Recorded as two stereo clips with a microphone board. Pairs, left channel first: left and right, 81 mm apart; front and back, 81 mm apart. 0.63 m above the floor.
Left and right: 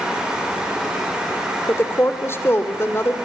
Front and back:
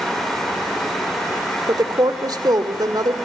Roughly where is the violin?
I don't hear a violin.